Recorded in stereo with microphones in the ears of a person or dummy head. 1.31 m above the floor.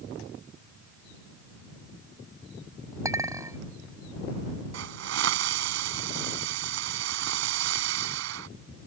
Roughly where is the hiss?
Right.